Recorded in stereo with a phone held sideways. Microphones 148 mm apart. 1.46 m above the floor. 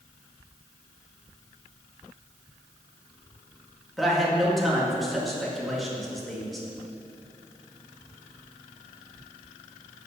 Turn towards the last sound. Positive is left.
turn(degrees=0)  # may be behind; listen again after turning